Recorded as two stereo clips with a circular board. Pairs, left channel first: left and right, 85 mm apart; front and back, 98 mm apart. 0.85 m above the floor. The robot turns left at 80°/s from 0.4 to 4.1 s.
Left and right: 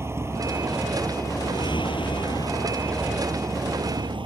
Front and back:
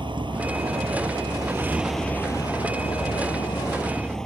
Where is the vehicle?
150° right; by 4.3 s 85° right.